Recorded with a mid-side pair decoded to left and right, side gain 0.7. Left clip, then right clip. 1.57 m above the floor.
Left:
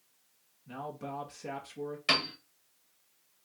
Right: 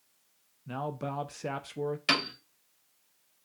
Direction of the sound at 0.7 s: 35° right.